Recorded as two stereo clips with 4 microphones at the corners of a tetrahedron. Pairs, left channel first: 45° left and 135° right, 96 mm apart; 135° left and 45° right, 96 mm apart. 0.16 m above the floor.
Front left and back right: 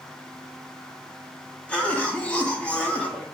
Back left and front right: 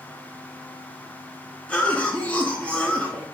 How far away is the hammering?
I don't hear hammering.